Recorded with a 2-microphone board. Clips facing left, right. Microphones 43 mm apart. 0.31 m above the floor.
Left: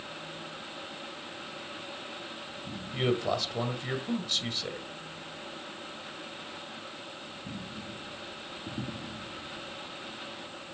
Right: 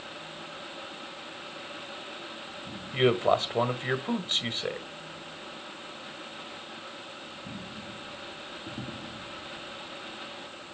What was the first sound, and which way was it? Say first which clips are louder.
A man speaking: right 6 dB; 35° right (ahead or behind).